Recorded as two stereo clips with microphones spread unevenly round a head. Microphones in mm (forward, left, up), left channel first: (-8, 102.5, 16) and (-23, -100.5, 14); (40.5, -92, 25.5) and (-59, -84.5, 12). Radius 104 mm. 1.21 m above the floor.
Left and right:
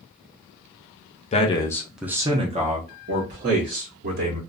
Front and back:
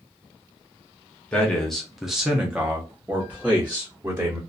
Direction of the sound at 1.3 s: 85° left.